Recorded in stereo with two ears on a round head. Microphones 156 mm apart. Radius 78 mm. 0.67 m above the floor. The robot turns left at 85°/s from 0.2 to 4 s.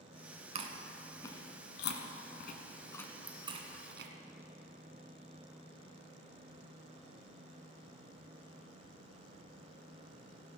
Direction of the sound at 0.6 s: 40° right (ahead or behind).